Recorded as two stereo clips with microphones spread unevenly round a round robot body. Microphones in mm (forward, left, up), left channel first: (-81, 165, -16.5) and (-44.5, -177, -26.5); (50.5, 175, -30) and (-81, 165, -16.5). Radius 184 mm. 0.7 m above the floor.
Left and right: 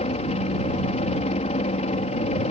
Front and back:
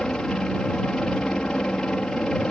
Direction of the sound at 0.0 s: 75° left.